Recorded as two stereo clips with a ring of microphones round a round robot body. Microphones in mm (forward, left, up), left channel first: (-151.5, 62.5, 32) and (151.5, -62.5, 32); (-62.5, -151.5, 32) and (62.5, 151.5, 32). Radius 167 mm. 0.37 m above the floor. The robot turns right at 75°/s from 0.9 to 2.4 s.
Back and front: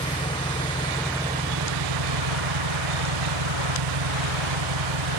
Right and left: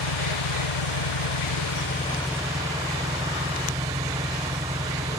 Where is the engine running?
125° right; by 5.2 s 15° right.